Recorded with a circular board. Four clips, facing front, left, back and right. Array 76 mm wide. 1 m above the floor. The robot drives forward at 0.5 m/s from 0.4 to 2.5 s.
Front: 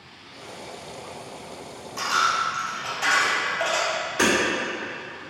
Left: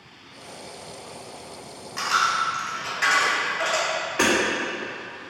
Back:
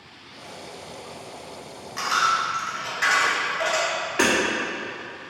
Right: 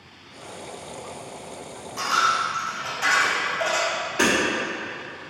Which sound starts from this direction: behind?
Hammering, at 4.2 s.